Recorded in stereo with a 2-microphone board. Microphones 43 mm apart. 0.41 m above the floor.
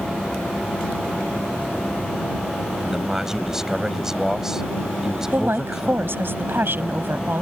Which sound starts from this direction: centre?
A man speaking, at 2.8 s.